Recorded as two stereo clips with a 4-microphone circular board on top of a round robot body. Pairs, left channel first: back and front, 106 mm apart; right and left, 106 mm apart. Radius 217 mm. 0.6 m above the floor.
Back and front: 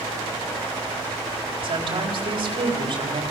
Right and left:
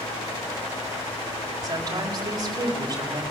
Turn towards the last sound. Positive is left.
turn(degrees=35)